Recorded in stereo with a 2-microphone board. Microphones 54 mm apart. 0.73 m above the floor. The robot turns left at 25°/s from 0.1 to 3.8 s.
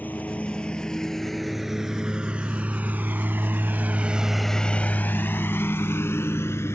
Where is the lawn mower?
35° left (ahead or behind); by 6.8 s 55° left (ahead or behind).